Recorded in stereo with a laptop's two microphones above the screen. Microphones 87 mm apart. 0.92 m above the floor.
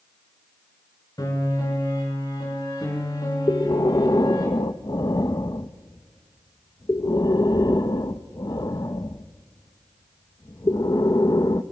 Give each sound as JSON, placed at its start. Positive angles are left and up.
{"t": 1.2, "sound": "a piano", "side_deg": 50, "distance_m": 5.5}
{"t": 3.5, "sound": "breathing", "side_deg": 50, "distance_m": 0.9}